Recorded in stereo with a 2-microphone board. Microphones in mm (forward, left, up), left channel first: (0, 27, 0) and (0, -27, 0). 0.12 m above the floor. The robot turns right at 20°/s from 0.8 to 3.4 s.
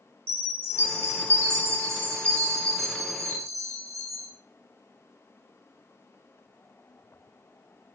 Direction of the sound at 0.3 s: 140° right.